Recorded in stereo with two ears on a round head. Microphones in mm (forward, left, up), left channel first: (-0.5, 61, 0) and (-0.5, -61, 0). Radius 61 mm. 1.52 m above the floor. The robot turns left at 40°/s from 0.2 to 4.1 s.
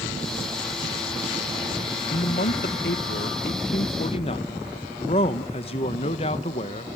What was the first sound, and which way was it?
A man speaking, 125° left.